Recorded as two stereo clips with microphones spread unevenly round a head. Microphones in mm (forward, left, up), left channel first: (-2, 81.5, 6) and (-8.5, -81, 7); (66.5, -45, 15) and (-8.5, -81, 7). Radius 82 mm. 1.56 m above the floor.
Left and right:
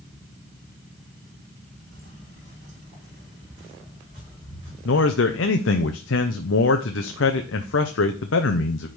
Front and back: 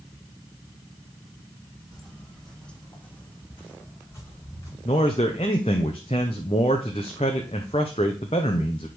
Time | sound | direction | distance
1.9 | footsteps | 70° right | 2.5 m
4.8 | a man speaking | 75° left | 0.7 m